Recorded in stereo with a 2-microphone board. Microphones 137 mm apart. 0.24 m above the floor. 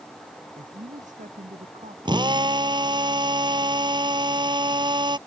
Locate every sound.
0.6 s a man speaking: 65° right (ahead or behind); by 1.9 s 60° right (ahead or behind)
2.0 s a drill: 30° right (ahead or behind)